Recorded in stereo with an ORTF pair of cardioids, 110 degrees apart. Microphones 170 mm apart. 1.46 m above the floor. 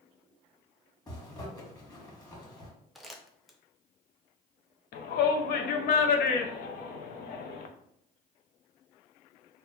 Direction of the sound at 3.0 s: Straight ahead.